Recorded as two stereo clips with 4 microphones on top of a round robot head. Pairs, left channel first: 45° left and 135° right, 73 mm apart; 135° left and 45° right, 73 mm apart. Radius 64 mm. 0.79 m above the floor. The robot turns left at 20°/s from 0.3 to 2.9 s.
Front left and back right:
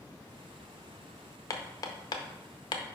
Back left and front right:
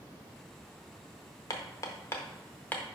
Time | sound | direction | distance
1.5 | hammering | 90° left | 0.6 m